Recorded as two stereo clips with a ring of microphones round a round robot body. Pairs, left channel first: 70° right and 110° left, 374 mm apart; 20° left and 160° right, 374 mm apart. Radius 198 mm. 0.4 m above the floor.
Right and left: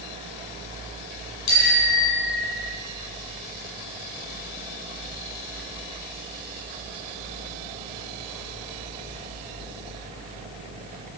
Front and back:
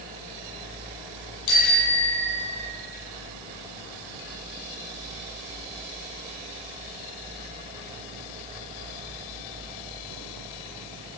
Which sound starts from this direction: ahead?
A bicycle bell, at 1.5 s.